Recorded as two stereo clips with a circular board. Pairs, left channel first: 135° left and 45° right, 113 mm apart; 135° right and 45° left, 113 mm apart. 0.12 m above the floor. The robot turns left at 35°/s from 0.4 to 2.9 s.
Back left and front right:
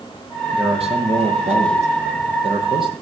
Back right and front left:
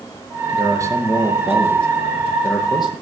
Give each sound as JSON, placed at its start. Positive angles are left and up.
{"t": 0.5, "sound": "a man speaking", "azimuth_deg": -5, "distance_m": 3.5}